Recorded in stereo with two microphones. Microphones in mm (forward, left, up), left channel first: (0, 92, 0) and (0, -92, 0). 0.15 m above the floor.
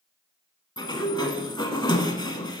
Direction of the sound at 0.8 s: 25° left (ahead or behind).